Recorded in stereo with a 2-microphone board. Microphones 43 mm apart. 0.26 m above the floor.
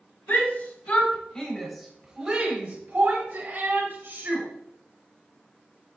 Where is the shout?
50° left (ahead or behind), 1.8 m; by 4.5 s 65° right (ahead or behind), 2.5 m.